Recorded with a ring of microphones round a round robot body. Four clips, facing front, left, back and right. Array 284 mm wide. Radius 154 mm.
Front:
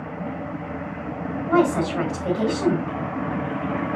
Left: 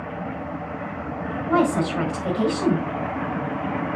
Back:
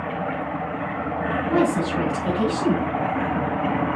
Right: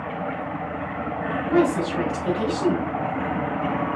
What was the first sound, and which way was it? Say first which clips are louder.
A woman speaking: even, front 2 dB; 35° left.